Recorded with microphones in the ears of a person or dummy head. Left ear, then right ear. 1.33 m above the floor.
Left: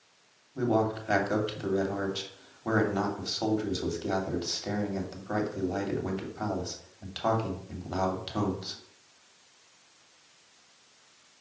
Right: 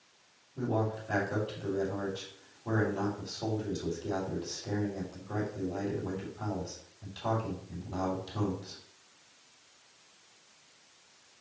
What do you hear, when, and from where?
0.6 s a man speaking: 70° left (ahead or behind), 2.5 m